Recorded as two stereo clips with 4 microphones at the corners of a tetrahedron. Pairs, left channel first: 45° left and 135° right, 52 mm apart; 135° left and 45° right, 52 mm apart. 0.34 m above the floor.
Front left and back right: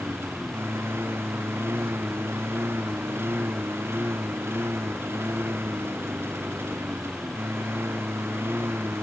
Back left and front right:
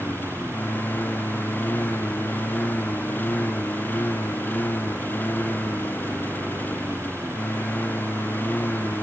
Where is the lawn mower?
175° right.